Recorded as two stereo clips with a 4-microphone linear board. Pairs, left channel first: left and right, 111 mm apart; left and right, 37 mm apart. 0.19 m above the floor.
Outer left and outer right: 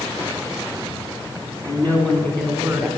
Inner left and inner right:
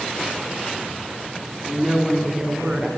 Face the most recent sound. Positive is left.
turn(degrees=-10)  # may be behind; listen again after turning